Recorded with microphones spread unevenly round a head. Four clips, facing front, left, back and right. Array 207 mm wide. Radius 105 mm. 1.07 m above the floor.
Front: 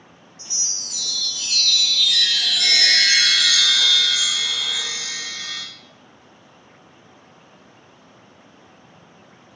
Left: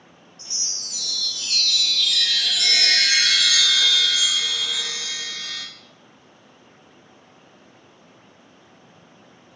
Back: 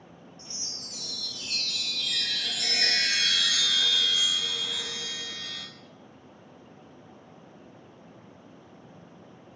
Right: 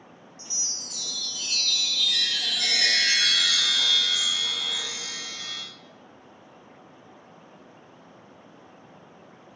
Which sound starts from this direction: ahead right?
A chime, at 0.4 s.